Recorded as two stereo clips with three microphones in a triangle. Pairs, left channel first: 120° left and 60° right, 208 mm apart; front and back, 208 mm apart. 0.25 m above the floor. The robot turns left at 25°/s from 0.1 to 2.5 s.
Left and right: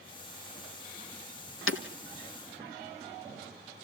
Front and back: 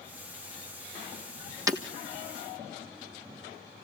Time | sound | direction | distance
1.7 | breaking glass | 105° left | 1.5 m